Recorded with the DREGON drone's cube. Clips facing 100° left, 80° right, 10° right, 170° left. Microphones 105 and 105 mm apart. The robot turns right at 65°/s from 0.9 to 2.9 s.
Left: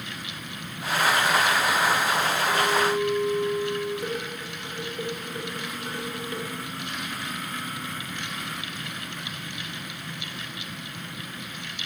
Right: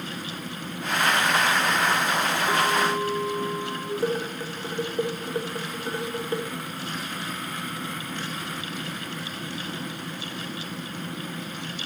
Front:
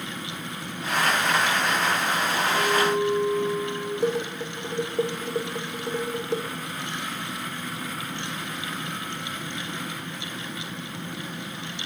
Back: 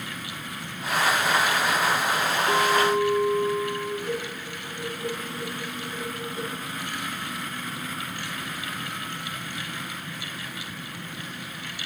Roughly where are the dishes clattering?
Ahead.